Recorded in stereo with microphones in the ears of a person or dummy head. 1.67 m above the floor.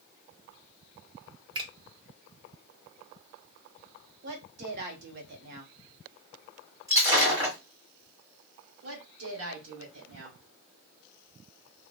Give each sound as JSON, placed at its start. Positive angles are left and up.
{"t": 1.6, "sound": "a finger snap", "side_deg": -25, "distance_m": 0.7}
{"t": 4.2, "sound": "a woman speaking", "side_deg": -55, "distance_m": 0.6}
{"t": 6.9, "sound": "breaking glass", "side_deg": -10, "distance_m": 1.6}
{"t": 8.8, "sound": "a woman speaking", "side_deg": -80, "distance_m": 1.2}